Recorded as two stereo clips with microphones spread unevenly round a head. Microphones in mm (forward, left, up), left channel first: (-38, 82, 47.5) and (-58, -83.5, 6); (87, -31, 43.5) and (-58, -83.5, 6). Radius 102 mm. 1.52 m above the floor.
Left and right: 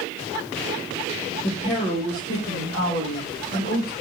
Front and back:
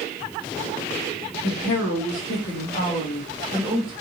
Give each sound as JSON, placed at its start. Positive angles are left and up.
{"t": 1.4, "sound": "a woman speaking", "azimuth_deg": 15, "distance_m": 1.2}